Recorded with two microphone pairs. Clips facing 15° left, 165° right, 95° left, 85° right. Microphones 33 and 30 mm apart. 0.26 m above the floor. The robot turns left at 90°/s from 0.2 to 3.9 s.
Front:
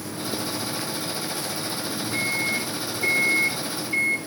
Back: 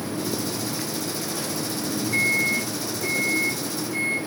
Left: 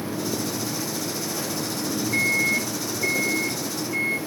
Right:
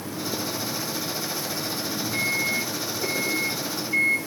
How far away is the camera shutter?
I don't hear a camera shutter.